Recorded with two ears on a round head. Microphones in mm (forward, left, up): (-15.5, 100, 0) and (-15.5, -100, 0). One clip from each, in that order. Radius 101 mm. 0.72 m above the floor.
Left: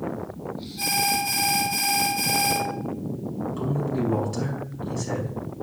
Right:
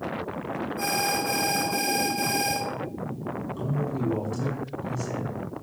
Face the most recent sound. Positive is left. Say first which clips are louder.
# left 5 dB
turn(degrees=15)  # may be behind; listen again after turning